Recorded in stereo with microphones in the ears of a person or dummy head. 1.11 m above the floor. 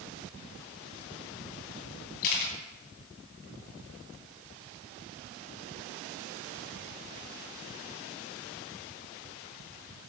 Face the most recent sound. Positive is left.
turn(degrees=45)  # may be behind; listen again after turning